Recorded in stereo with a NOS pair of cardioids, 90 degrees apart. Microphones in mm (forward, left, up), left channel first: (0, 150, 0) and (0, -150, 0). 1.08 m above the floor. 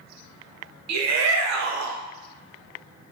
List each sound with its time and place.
0.9 s a shout: 65° right, 0.6 m